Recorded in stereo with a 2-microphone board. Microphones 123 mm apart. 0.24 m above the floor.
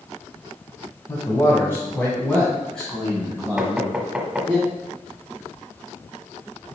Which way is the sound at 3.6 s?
5° right (ahead or behind).